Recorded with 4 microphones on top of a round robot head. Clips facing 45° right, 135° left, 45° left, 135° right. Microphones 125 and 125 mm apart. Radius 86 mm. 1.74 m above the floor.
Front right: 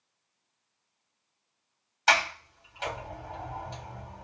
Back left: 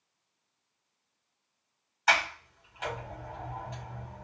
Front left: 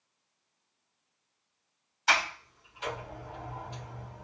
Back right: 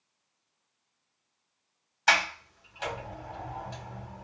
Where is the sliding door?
105° right, 2.5 m.